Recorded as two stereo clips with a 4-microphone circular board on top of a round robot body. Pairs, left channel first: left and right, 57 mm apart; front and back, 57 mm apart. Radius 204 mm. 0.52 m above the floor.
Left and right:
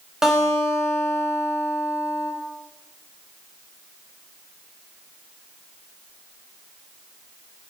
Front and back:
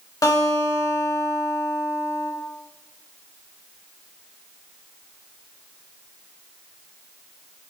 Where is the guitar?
10° right, 2.5 m.